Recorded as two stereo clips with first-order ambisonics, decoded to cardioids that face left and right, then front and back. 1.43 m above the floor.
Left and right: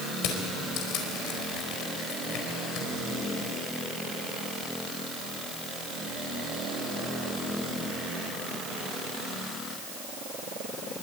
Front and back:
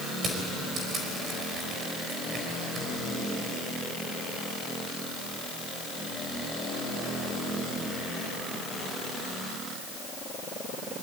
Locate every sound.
0.2 s crushing: 115° left, 4.5 m